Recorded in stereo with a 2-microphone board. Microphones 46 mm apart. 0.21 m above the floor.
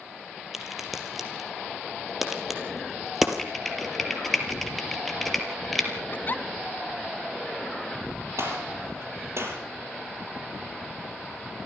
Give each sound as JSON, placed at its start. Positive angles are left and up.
{"t": 0.5, "sound": "a crack", "side_deg": -5, "distance_m": 3.5}
{"t": 3.4, "sound": "typing on a keyboard", "side_deg": 5, "distance_m": 4.5}
{"t": 6.1, "sound": "a giggle", "side_deg": 45, "distance_m": 0.8}
{"t": 8.4, "sound": "a gunshot", "side_deg": -70, "distance_m": 6.0}